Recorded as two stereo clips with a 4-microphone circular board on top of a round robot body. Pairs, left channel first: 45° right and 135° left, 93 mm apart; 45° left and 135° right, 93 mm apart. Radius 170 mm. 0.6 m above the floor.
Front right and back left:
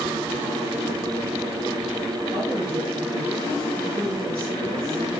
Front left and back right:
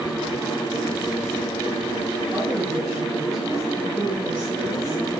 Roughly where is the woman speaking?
Behind left.